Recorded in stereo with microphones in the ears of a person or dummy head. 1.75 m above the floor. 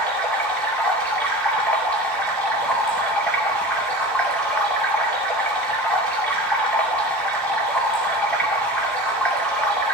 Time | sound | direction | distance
0.0 | running water | 5° left (ahead or behind) | 2 m